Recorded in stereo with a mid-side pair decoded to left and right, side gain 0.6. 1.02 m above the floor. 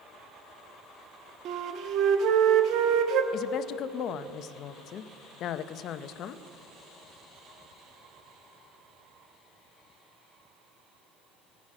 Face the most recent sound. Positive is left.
turn(degrees=55)